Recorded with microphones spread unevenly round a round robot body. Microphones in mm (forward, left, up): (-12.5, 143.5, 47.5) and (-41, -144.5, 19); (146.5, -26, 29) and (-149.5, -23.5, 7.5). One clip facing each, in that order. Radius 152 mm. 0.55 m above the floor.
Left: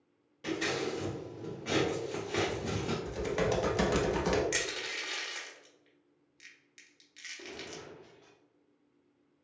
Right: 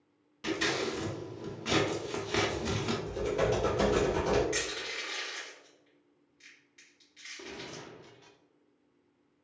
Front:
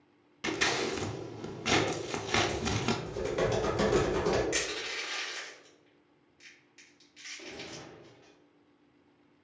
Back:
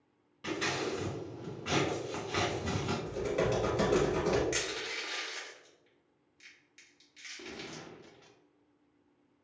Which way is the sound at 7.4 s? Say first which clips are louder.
Right 1 dB, even; 155° right.